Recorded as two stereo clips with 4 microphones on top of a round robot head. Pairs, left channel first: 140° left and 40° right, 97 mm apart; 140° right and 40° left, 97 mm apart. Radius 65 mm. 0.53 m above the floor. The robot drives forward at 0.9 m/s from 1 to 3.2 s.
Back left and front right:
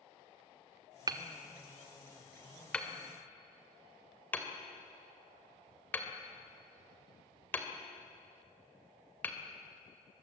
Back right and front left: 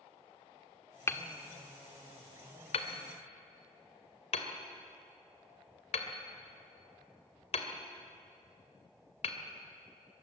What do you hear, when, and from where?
1.1 s hammering: 80° right, 1.4 m; by 9.4 s 145° right, 2 m